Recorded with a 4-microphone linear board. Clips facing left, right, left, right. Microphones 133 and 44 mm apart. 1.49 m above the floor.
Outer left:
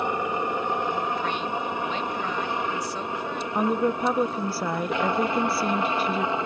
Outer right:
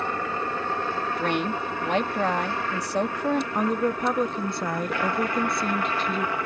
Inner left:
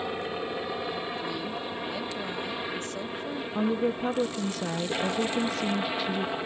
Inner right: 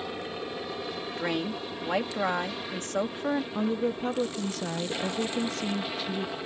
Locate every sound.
0.0 s a helicopter: 15° left (ahead or behind); by 6.5 s 20° left (ahead or behind)
1.2 s a woman speaking: 70° right (ahead or behind)
3.5 s a woman speaking: 5° left (ahead or behind)